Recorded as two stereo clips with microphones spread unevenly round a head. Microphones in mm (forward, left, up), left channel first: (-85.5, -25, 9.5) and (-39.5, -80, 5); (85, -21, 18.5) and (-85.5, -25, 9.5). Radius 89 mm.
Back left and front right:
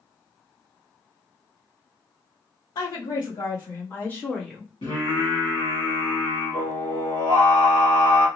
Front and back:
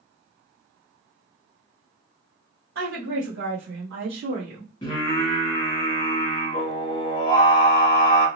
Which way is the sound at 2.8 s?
145° left.